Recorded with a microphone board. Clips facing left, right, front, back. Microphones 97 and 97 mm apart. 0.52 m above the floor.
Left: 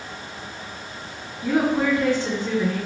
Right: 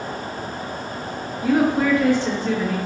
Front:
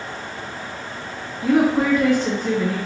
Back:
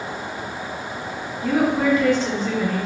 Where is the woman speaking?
30° left, 1.9 m.